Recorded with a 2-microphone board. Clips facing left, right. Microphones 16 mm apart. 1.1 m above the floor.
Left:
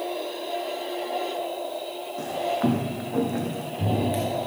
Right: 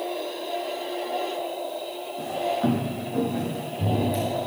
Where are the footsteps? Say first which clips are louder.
Even; 65° left (ahead or behind), 2.5 m; by 4.4 s 35° left (ahead or behind), 4.5 m.